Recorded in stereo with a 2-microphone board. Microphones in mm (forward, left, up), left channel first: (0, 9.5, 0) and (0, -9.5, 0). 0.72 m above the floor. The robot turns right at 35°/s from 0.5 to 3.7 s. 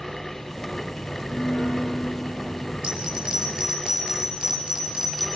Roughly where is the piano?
Left.